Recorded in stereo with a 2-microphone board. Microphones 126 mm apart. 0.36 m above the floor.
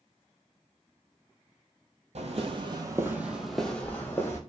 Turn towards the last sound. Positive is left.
turn(degrees=20)  # may be behind; listen again after turning